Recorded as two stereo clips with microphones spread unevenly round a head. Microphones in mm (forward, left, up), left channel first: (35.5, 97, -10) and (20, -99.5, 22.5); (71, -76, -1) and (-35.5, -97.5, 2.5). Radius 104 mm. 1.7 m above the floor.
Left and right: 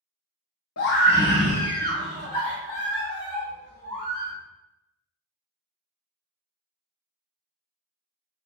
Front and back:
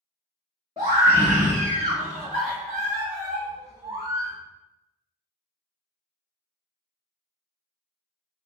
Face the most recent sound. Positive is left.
turn(degrees=-140)